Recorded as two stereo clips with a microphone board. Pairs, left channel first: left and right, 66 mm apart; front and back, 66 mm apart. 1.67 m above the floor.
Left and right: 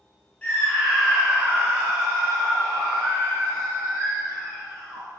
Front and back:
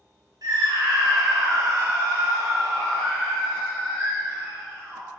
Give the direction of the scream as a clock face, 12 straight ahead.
7 o'clock.